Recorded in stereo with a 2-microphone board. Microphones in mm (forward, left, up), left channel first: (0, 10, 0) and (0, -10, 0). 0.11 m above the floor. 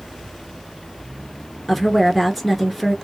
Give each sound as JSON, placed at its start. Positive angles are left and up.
{"t": 1.7, "sound": "a woman speaking", "side_deg": 5, "distance_m": 1.2}